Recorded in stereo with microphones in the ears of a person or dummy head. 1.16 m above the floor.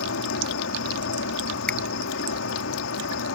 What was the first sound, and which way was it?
An insect, 65° left (ahead or behind).